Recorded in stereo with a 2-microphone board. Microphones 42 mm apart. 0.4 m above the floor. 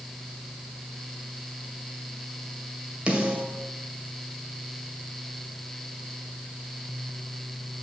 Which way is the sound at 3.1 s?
25° right (ahead or behind).